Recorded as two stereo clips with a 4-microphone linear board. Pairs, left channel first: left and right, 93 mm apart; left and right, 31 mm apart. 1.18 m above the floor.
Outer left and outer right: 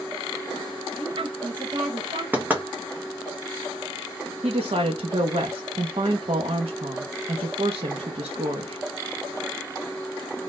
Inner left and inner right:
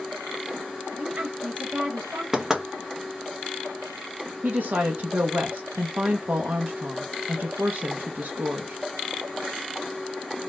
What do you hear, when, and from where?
1.0 s a woman speaking: 60° right (ahead or behind), 1.2 m
2.3 s knocking: 20° right (ahead or behind), 0.9 m
4.4 s a woman speaking: 85° right, 0.8 m